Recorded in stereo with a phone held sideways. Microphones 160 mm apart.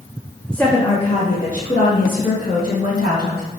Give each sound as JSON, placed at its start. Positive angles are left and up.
{"t": 0.5, "sound": "a woman speaking", "side_deg": 5, "distance_m": 0.8}